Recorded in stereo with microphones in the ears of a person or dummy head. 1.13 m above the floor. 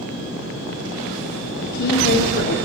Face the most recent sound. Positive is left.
turn(degrees=60)  # may be behind; listen again after turning